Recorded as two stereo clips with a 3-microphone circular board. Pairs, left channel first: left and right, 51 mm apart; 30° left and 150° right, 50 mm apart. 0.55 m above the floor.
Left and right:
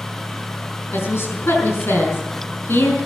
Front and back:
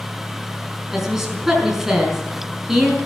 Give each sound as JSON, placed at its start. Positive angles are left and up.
{"t": 0.9, "sound": "a woman speaking", "azimuth_deg": 130, "distance_m": 5.5}